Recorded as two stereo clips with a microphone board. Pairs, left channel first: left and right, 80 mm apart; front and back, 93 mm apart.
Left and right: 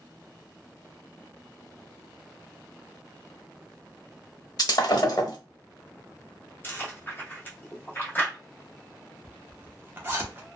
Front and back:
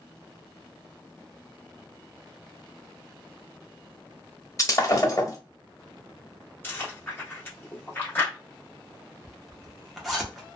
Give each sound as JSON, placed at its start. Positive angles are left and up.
{"t": 4.6, "sound": "breaking glass", "azimuth_deg": 55, "distance_m": 1.0}
{"t": 6.6, "sound": "chewing", "azimuth_deg": 50, "distance_m": 1.1}
{"t": 9.2, "sound": "a zipper", "azimuth_deg": -90, "distance_m": 0.8}